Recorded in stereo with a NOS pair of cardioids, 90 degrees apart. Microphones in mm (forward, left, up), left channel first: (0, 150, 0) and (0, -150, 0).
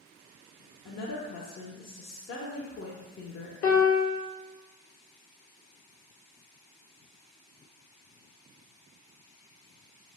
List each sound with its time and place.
0.8 s a woman speaking: 50° left, 0.6 m
3.6 s a piano: 60° left, 1.0 m